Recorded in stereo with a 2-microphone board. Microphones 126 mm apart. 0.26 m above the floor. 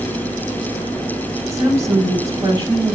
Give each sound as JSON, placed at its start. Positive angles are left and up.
{"t": 1.5, "sound": "a woman speaking", "side_deg": -25, "distance_m": 2.0}